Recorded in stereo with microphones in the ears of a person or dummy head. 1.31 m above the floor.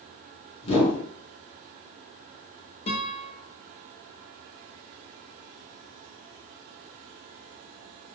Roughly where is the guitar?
Left.